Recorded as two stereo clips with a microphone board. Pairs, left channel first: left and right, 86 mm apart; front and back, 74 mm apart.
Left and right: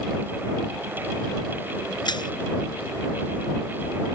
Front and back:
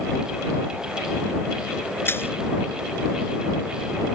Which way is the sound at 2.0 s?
60° left.